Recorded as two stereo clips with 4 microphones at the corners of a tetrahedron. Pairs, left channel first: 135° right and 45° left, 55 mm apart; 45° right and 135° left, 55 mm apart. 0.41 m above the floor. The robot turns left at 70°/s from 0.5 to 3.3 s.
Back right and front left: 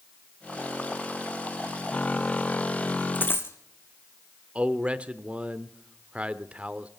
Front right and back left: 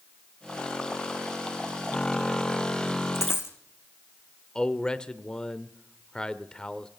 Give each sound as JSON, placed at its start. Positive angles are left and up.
{"t": 3.1, "sound": "a dropped coin", "azimuth_deg": -75, "distance_m": 2.0}
{"t": 4.5, "sound": "a man speaking", "azimuth_deg": 10, "distance_m": 0.8}